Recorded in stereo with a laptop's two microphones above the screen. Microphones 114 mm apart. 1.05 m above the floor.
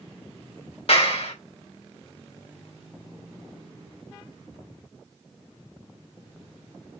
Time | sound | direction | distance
0.9 | a clap | 60° left (ahead or behind) | 2.5 m